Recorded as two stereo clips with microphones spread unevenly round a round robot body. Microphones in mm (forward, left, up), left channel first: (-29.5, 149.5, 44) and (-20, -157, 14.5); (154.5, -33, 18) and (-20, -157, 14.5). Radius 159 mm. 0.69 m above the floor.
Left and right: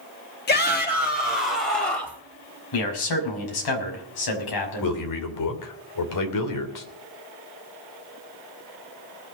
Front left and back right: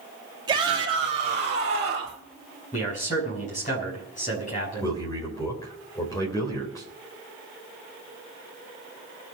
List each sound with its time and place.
0.5 s a shout: 145° left, 1.4 m; by 2.2 s 160° left, 2.5 m
2.7 s a man speaking: 105° left, 6 m
4.8 s a man speaking: 115° left, 3 m